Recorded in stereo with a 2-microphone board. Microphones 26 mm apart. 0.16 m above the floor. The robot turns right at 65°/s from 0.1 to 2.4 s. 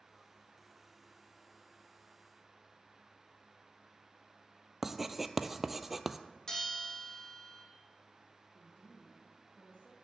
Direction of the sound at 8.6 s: 65° left (ahead or behind).